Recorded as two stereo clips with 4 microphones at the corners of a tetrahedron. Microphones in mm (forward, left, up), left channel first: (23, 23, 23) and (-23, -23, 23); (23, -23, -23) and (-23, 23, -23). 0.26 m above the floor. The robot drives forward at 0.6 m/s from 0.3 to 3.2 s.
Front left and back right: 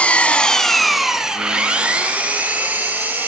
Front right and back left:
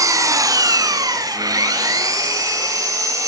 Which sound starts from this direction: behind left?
An engine running, at 0.0 s.